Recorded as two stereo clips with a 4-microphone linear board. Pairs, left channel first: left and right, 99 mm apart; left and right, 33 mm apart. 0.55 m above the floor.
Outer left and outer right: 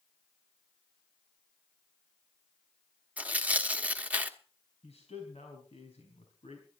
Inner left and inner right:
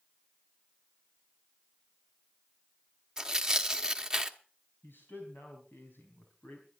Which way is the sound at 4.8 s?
80° left.